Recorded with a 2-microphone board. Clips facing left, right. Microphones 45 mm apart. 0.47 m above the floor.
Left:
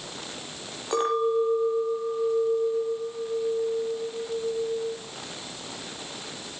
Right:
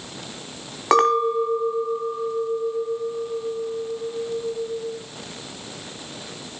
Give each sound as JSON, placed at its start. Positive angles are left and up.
{"t": 0.9, "sound": "a clink", "side_deg": -80, "distance_m": 2.5}